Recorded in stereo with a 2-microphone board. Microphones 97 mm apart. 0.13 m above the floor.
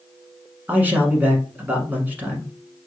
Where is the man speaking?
20° right (ahead or behind), 1.1 m.